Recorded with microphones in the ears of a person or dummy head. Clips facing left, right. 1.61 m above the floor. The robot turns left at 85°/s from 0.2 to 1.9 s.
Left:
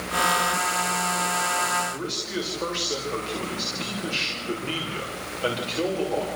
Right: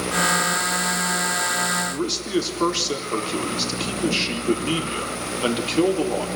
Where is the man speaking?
65° right (ahead or behind), 5 m.